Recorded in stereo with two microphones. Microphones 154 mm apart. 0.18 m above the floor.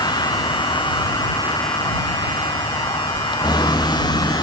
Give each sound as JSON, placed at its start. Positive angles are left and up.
{"t": 0.0, "sound": "a vehicle", "side_deg": 25}